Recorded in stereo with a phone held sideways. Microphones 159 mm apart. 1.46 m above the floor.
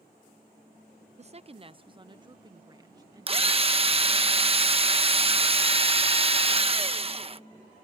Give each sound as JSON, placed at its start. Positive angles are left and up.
{"t": 1.2, "sound": "a woman speaking", "side_deg": -45}
{"t": 3.3, "sound": "a drill", "side_deg": -35}